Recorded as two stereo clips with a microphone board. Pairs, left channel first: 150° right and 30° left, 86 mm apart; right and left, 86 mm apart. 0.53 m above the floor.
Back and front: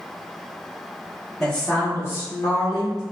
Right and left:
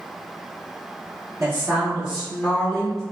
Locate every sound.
1.4 s a woman speaking: 125° left, 1.1 m; by 3.0 s 165° right, 1.6 m